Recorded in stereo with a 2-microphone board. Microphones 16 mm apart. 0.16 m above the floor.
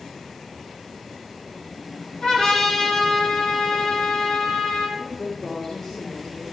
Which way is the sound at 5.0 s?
30° left (ahead or behind).